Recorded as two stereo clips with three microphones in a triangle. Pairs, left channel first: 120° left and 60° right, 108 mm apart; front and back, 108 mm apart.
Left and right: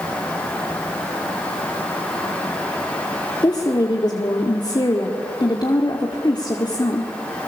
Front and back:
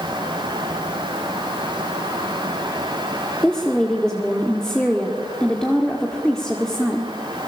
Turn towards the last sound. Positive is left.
turn(degrees=85)